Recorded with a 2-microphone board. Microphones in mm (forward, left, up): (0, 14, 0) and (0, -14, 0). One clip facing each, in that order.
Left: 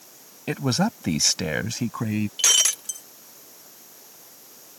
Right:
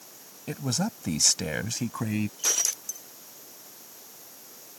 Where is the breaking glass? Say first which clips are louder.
Left 8 dB; 80° left.